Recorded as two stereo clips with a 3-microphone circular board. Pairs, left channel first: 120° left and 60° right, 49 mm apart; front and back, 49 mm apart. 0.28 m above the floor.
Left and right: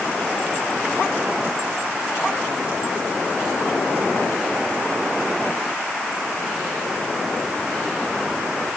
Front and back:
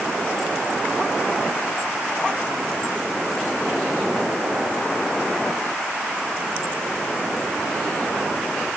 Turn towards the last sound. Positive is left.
No sound to turn to.